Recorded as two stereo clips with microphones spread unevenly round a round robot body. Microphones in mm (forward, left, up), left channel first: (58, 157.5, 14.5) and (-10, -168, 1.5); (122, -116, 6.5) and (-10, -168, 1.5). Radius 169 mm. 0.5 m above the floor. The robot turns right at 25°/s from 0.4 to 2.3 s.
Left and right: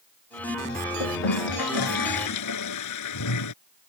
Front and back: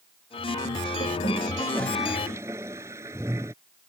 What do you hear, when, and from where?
1.0 s a toilet flushing: 85° left; by 3.5 s 120° left